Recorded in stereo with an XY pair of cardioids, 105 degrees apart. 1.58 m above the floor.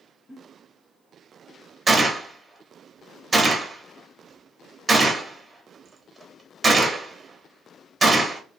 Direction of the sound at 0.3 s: 25° left.